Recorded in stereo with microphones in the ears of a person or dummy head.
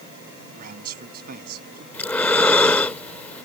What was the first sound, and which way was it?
A man speaking, 50° right (ahead or behind).